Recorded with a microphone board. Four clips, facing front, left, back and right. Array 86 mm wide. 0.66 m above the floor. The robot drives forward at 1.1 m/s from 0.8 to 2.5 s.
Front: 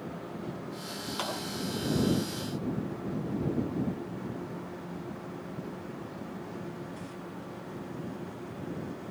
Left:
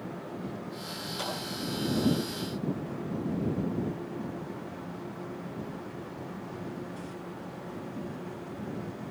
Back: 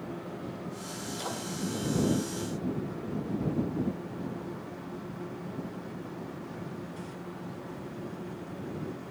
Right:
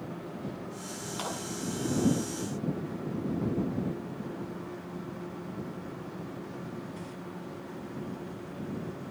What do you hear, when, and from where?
1.2 s a clap: 20° right, 6.5 m